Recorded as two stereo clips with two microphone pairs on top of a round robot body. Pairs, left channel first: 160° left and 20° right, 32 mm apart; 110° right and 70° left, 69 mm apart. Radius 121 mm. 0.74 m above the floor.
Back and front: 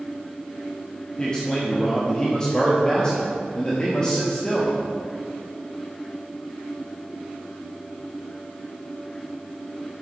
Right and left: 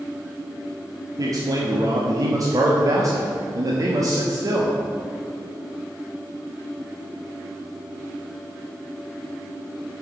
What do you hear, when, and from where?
1.2 s a man speaking: 95° left, 1.2 m